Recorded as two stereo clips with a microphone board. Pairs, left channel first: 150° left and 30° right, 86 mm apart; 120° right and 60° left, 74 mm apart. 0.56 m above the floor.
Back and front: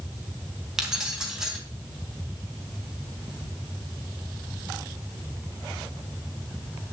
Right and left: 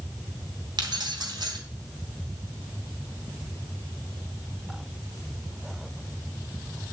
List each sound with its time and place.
0.8 s keys jangling: 50° left, 3 m